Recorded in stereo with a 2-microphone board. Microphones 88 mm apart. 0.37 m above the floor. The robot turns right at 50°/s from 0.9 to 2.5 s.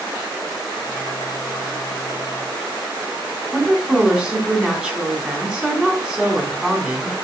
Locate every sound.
3.5 s a woman speaking: 10° right (ahead or behind), 2.5 m